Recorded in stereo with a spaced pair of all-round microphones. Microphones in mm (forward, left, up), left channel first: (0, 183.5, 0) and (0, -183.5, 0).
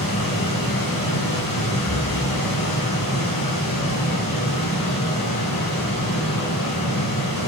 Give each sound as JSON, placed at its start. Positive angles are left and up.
{"t": 0.0, "sound": "a machine running", "side_deg": 60, "distance_m": 3.5}
{"t": 1.9, "sound": "breathing", "side_deg": 60, "distance_m": 1.7}